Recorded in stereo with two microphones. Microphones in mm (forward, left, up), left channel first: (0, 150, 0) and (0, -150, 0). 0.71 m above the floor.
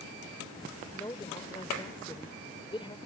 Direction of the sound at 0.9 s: 15° left (ahead or behind).